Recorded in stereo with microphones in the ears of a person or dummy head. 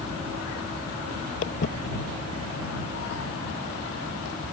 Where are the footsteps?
40° left (ahead or behind); by 4.3 s 70° left (ahead or behind).